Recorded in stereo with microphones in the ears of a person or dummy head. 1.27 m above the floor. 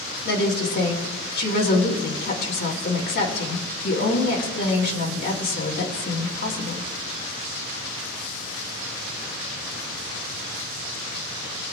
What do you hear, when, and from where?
0.2 s a woman speaking: 55° left (ahead or behind), 2.5 m